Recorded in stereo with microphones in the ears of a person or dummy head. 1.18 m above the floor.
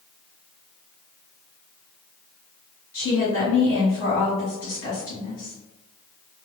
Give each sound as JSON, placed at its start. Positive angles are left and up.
{"t": 2.9, "sound": "a woman speaking", "side_deg": 65, "distance_m": 1.4}